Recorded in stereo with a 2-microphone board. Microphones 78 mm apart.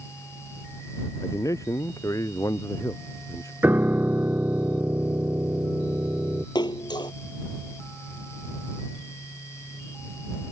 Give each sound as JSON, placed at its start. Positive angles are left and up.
{"t": 1.2, "sound": "a man speaking", "side_deg": 45}
{"t": 3.6, "sound": "a piano", "side_deg": -25}
{"t": 6.5, "sound": "a splash", "side_deg": 65}